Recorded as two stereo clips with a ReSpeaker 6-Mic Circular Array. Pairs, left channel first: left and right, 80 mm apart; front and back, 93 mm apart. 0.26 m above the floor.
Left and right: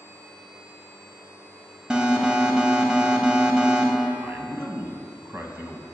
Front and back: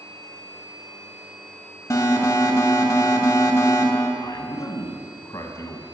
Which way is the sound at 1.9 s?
15° right.